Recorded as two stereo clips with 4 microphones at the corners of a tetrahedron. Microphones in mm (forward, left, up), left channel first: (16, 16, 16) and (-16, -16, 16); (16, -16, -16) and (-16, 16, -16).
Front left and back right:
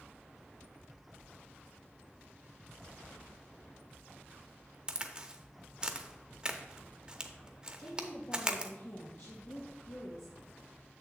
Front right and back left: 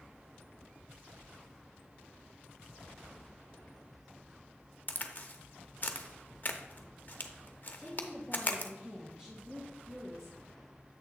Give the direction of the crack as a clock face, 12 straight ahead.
2 o'clock.